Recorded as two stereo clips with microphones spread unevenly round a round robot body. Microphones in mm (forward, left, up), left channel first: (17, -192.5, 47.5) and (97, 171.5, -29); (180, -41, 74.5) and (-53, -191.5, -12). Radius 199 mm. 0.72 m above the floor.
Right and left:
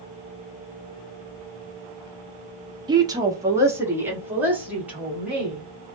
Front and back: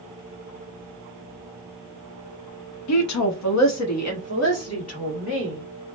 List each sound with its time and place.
2.9 s a woman speaking: 15° left, 0.7 m; by 5.6 s 5° right, 2 m